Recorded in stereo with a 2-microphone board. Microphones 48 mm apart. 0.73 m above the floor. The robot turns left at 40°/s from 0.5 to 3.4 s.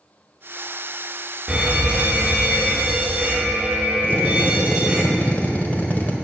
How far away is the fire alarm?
About 1.6 m.